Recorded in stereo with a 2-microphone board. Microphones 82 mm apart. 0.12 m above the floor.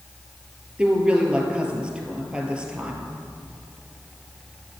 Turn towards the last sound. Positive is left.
turn(degrees=-15)  # may be behind; listen again after turning